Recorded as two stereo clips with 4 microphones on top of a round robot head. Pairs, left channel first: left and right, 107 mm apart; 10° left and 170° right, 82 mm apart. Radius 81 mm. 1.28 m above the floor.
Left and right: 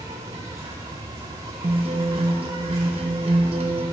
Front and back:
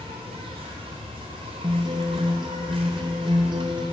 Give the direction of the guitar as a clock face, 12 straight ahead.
4 o'clock.